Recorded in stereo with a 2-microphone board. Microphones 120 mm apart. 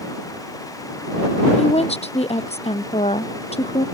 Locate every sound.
1.6 s a woman speaking: 60° left (ahead or behind)